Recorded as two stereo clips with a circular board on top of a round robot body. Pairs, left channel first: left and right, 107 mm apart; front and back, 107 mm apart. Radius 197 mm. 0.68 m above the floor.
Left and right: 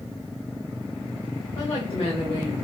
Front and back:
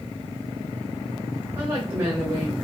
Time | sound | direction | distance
1.6 | a woman speaking | 130° left | 2.5 m